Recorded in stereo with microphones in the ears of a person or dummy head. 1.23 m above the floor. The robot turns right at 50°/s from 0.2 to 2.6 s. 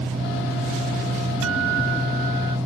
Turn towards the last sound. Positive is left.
turn(degrees=-30)